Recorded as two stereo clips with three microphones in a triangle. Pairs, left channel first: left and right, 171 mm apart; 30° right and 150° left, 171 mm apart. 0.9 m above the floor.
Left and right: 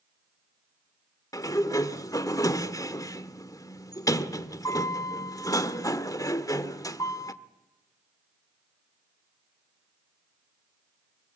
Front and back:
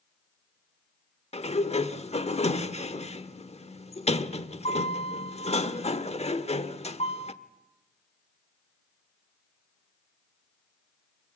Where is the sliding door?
20° left, 1.2 m.